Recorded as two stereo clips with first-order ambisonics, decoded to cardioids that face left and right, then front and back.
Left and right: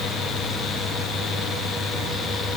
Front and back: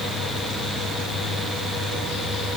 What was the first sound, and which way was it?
Only background noise.